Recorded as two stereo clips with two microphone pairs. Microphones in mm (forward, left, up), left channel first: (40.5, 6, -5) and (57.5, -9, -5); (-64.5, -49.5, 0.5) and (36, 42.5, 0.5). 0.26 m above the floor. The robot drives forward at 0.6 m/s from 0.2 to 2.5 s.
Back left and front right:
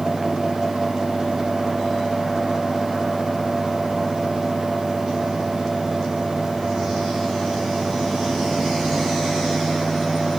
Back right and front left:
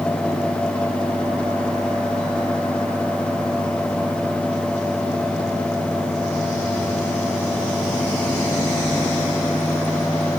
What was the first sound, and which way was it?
Only background noise.